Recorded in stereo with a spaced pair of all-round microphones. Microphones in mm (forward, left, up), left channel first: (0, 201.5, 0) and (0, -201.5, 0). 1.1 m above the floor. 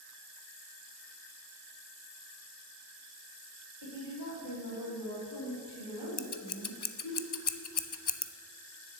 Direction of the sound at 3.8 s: 70° left (ahead or behind).